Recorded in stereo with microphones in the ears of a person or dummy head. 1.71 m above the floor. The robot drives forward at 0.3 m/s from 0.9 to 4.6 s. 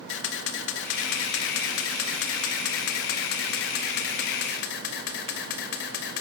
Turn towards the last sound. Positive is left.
turn(degrees=60)  # may be behind; listen again after turning